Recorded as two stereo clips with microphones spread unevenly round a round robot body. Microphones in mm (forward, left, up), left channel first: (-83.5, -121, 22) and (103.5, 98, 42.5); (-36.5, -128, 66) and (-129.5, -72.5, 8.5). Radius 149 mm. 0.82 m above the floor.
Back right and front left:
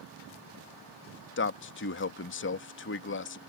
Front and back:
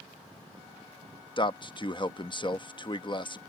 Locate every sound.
1.4 s a man speaking: 90° right